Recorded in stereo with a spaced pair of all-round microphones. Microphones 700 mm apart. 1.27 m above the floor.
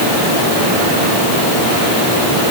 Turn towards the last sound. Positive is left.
No sound to turn to.